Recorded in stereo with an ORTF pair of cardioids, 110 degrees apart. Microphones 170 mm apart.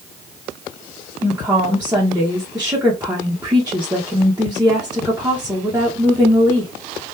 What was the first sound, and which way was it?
A woman speaking, 10° right.